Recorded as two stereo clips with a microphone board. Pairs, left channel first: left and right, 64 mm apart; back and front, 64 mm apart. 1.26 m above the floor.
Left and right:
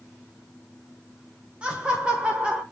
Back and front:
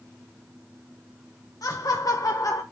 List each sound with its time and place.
1.6 s laughter: 165° right, 1.0 m